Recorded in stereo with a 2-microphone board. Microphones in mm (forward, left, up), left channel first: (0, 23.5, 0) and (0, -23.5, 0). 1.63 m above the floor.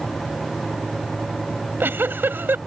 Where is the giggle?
55° right (ahead or behind).